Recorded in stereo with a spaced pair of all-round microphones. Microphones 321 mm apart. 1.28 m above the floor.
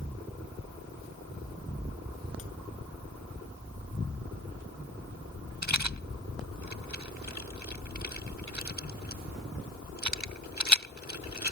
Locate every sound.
5.6 s a rattle: 60° right (ahead or behind)